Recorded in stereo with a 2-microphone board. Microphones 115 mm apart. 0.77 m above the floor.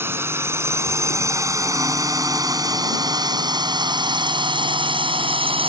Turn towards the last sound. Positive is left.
turn(degrees=-55)  # may be behind; listen again after turning